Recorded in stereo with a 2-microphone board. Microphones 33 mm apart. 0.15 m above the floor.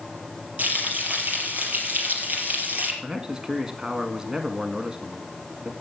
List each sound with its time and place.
0.6 s frying: 55° right (ahead or behind), 4 m
3.0 s a man speaking: 20° right (ahead or behind), 1.3 m